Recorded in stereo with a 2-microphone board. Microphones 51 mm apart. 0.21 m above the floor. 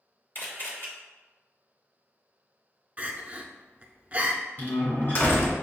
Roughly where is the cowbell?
I don't hear a cowbell.